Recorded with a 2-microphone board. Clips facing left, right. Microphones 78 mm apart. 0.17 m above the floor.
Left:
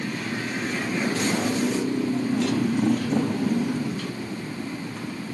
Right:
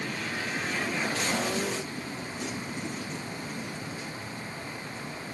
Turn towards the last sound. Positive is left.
turn(degrees=75)  # may be behind; listen again after turning